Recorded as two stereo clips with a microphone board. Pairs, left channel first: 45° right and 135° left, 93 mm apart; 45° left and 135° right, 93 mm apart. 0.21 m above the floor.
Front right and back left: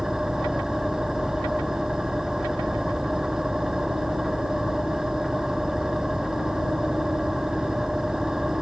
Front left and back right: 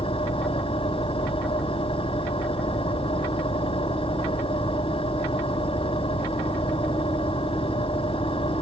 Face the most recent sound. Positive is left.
turn(degrees=50)